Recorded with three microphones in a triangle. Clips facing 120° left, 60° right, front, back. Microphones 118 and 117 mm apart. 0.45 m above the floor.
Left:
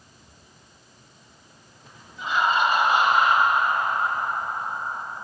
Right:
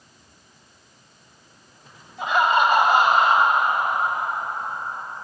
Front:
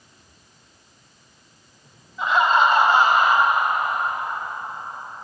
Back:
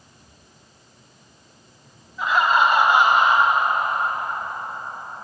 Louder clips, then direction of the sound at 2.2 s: Right 3 dB, front 1 dB; 90° right.